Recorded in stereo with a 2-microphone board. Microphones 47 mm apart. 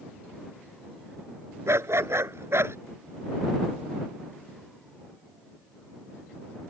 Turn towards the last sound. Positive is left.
turn(degrees=-70)  # may be behind; listen again after turning